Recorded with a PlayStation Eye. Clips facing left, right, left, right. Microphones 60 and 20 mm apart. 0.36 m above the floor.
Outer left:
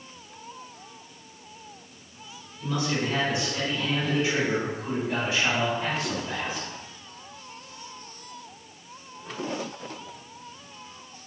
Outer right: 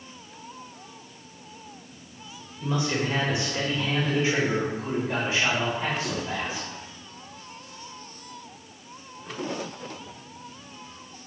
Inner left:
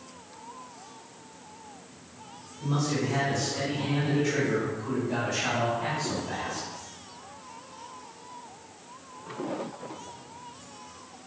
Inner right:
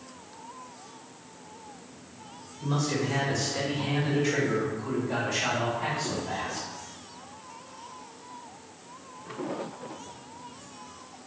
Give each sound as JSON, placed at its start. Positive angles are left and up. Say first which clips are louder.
{"t": 2.6, "sound": "a man speaking", "louder": "outer right 1 dB, even", "side_deg": -25, "distance_m": 1.5}